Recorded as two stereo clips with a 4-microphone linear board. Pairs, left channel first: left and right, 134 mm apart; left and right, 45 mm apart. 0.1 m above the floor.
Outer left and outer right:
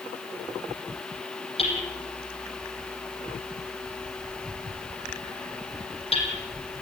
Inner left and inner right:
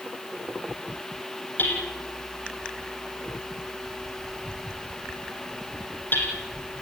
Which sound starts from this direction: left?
Hammering, at 1.6 s.